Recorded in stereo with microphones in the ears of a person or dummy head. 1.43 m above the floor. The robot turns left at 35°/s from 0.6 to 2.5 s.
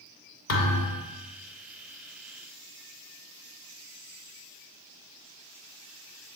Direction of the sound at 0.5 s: 60° left (ahead or behind).